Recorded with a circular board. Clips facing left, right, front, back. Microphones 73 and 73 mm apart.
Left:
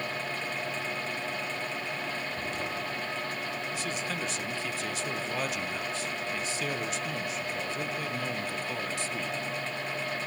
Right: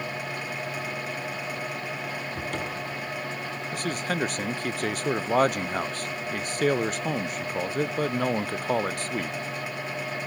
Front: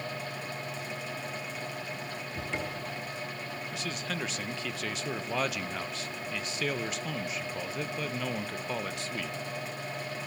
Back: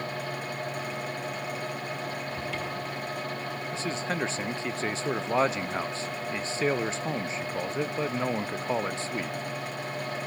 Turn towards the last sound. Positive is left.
turn(degrees=-120)